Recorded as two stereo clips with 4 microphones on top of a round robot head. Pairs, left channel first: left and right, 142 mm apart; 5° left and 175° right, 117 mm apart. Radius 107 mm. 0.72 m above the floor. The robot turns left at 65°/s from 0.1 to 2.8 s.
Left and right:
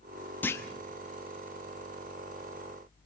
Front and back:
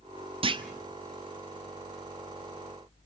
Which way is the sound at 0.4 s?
165° left.